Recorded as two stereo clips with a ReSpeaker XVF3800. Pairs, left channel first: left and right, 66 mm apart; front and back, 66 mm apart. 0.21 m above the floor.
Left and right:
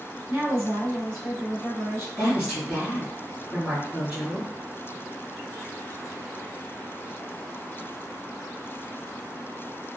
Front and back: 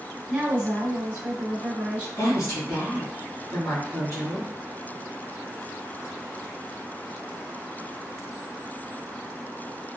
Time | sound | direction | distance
0.3 | a woman speaking | 125° right | 1.9 m
2.2 | a woman speaking | 35° right | 1.6 m